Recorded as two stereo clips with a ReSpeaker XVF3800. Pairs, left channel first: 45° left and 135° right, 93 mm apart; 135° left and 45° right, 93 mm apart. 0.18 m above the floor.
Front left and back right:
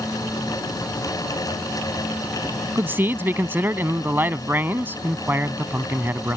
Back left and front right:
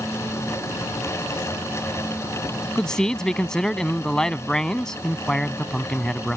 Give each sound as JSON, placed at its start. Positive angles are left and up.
{"t": 2.8, "sound": "a man speaking", "azimuth_deg": -150}